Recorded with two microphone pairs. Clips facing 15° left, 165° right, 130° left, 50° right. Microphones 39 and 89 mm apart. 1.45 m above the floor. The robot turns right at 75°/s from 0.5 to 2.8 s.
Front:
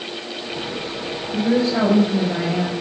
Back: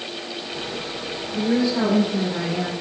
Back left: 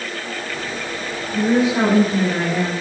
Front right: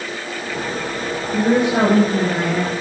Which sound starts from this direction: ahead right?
A woman speaking, at 1.3 s.